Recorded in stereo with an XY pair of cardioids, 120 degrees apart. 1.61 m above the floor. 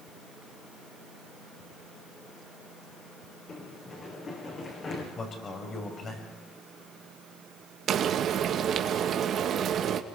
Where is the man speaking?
40° left, 7 m.